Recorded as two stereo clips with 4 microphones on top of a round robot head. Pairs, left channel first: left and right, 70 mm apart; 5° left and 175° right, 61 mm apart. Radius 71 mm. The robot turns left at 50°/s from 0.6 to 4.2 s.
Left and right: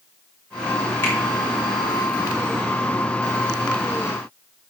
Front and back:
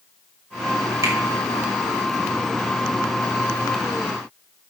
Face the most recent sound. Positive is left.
turn(degrees=-5)